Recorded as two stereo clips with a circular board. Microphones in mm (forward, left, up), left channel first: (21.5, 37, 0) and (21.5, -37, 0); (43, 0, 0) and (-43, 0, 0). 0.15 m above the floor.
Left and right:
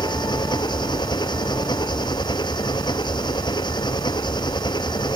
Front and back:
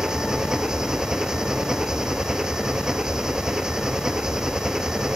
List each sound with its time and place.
0.0 s an engine running: 95° left